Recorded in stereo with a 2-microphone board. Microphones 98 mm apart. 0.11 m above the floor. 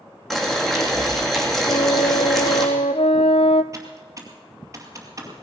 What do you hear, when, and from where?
0.3 s boiling: 5° left (ahead or behind), 3.5 m
1.7 s a flute: 80° left, 0.6 m
3.7 s typing on a keyboard: 30° right (ahead or behind), 2.5 m